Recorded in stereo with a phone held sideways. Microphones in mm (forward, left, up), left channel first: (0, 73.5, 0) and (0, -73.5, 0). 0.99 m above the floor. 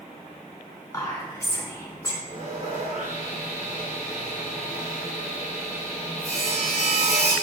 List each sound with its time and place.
0.9 s whispering: 25° left (ahead or behind), 3 m
2.3 s sawing: 65° right (ahead or behind), 2.5 m